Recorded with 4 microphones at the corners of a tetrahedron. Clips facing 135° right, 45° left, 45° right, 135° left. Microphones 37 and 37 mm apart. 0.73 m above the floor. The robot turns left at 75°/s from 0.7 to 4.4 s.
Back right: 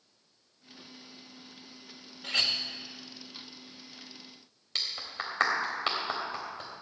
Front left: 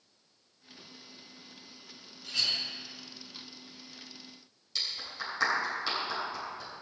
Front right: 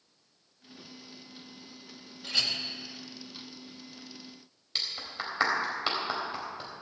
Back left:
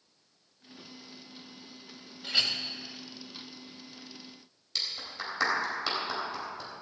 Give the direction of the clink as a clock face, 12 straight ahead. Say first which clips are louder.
Back right 3 dB, back left 1 dB; 5 o'clock.